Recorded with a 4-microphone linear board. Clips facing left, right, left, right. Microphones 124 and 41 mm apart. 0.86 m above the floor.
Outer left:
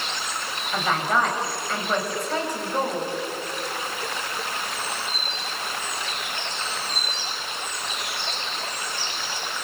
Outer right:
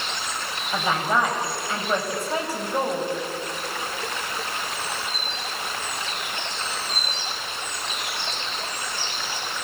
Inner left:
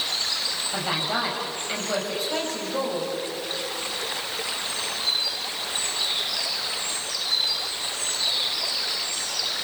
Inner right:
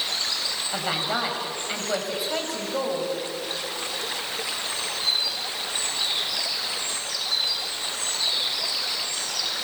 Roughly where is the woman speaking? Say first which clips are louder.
Even, even; centre.